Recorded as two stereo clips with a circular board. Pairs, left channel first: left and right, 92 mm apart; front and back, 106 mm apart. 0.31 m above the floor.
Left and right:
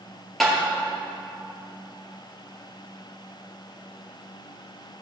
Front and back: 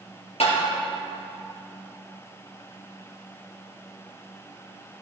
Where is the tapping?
5° left, 3.5 m.